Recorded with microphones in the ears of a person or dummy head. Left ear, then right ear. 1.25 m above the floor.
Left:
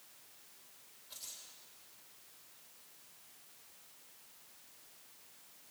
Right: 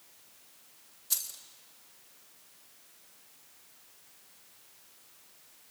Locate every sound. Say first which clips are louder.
1.1 s keys jangling: right 13 dB; 65° right (ahead or behind), 3.5 m